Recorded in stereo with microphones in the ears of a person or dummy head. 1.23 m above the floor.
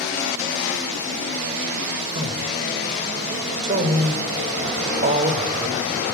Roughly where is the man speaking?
Right.